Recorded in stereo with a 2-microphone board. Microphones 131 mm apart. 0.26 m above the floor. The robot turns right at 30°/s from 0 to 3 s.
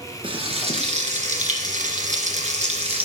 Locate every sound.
0.2 s frying: 135° right, 1.8 m; by 3.1 s 55° right, 1.8 m